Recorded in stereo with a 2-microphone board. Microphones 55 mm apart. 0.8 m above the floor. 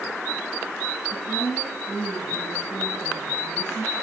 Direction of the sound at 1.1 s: 60° left (ahead or behind).